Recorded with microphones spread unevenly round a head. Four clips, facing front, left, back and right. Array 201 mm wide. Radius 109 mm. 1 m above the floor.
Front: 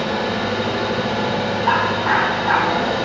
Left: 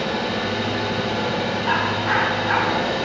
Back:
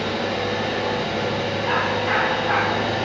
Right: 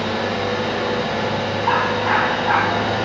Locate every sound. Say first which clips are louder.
0.0 s an engine running: right 2 dB, front 3 dB; 55° right, 1.3 m
1.6 s a dog barking: right 5 dB, front 5 dB; 40° right, 1.6 m